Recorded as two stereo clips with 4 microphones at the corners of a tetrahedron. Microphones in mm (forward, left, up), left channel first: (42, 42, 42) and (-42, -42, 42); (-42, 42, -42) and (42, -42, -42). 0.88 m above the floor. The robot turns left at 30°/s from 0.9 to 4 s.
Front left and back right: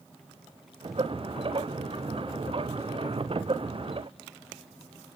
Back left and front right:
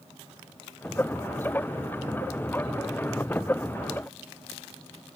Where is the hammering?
I don't hear hammering.